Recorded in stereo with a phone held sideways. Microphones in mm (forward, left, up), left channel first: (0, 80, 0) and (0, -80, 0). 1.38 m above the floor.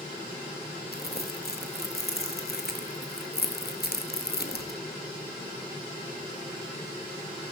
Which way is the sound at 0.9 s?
75° left (ahead or behind).